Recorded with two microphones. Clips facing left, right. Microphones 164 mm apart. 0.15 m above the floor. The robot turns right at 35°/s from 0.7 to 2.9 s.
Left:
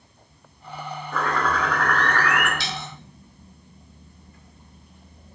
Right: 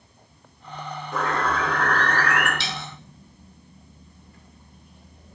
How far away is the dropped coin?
About 1.3 m.